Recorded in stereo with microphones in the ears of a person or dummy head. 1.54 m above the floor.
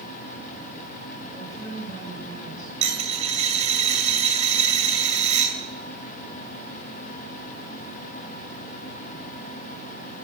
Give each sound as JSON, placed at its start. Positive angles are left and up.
{"t": 1.3, "sound": "a woman speaking", "side_deg": 20, "distance_m": 7.5}
{"t": 2.8, "sound": "a dropped coin", "side_deg": -35, "distance_m": 2.5}